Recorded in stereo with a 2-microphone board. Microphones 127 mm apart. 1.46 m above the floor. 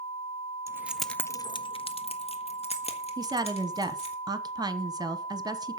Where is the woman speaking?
30° right (ahead or behind), 1.0 m.